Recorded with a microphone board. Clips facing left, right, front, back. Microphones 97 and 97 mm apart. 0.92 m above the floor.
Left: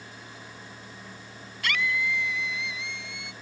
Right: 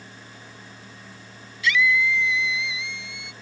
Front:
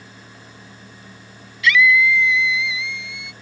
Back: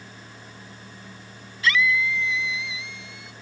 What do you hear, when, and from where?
1.6 s a scream: 125° left; by 3.3 s 130° left